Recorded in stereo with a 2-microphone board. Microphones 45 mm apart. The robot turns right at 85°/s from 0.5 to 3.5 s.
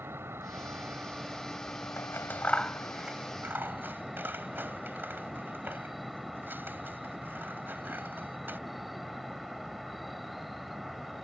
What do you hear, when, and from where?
0.0 s an insect: 75° right; by 11.2 s straight behind
2.0 s scissors: 75° left (ahead or behind); by 8.6 s 50° right (ahead or behind)